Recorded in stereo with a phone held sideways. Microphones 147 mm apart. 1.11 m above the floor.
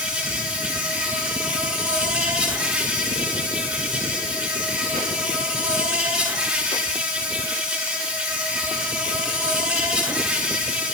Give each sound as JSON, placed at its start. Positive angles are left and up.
{"t": 0.0, "sound": "an insect", "side_deg": -5, "distance_m": 9.0}